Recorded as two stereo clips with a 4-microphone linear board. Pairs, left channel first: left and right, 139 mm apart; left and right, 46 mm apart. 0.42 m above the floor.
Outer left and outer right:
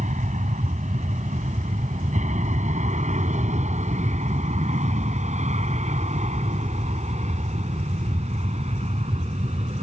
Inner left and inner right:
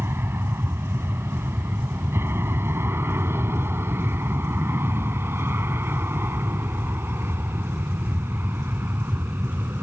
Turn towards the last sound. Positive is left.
turn(degrees=-50)  # may be behind; listen again after turning